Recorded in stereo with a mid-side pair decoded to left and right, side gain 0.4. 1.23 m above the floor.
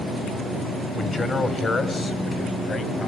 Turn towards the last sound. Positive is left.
turn(degrees=50)